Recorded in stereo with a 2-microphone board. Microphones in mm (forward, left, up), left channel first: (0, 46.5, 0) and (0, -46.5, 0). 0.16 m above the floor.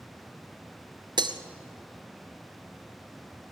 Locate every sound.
1.2 s breaking glass: 55° right (ahead or behind), 1.1 m